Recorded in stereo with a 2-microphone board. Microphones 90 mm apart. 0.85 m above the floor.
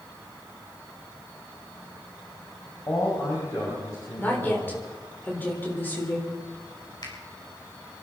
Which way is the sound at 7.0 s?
50° left (ahead or behind).